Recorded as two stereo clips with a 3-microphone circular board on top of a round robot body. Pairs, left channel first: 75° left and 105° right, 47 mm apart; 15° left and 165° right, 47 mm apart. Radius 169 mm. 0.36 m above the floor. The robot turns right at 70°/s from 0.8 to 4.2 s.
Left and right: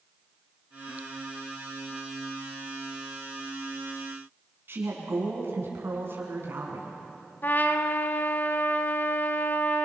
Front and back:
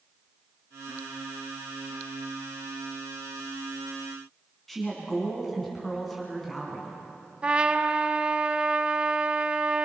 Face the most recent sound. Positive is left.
turn(degrees=125)